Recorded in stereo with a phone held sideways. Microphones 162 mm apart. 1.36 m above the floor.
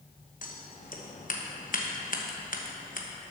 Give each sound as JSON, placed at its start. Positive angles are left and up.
{"t": 0.4, "sound": "scissors", "side_deg": 60, "distance_m": 1.0}